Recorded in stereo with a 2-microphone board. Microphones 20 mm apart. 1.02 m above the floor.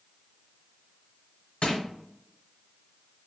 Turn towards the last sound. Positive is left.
turn(degrees=70)  # may be behind; listen again after turning